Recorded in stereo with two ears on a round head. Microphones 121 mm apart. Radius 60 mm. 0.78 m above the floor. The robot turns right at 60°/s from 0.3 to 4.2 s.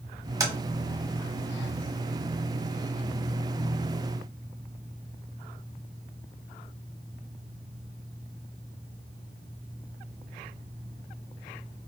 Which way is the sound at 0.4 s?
30° right (ahead or behind).